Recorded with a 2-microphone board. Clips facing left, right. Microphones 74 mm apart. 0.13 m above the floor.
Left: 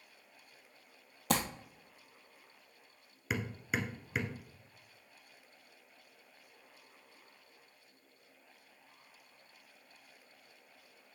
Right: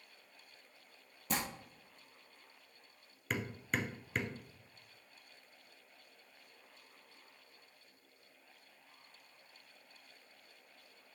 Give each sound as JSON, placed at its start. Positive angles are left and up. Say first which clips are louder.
{"t": 1.3, "sound": "crumpling", "louder": "left 6 dB", "side_deg": 75, "distance_m": 1.1}
{"t": 3.3, "sound": "hammering", "louder": "left 1 dB", "side_deg": 10, "distance_m": 1.1}